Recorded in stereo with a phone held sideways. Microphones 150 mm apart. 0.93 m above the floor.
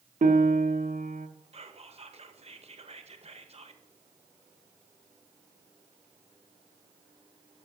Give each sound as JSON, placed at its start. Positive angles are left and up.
{"t": 0.2, "sound": "a piano", "side_deg": -65, "distance_m": 0.8}
{"t": 1.5, "sound": "whispering", "side_deg": -45, "distance_m": 0.8}